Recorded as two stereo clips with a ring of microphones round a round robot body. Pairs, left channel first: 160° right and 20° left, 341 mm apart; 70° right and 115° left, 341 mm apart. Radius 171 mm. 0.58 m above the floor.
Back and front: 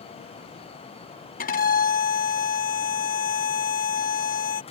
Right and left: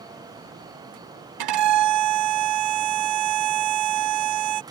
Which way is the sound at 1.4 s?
135° left.